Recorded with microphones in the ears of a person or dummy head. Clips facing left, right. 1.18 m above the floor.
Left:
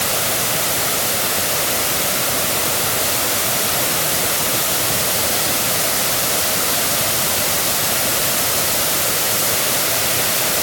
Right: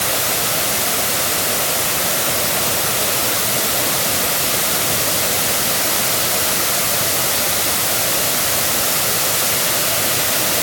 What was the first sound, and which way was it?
Only background noise.